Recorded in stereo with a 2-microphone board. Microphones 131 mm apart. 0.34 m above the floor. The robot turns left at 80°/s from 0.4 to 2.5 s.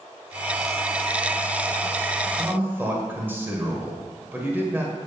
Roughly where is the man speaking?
Right.